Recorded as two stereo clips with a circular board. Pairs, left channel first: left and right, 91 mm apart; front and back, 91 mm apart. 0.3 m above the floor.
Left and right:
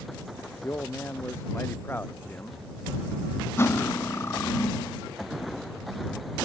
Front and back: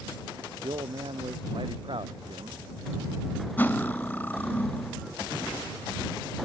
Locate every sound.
0.6 s a man speaking: 155° left; by 2.6 s 160° left
3.6 s cutlery clinking: 55° left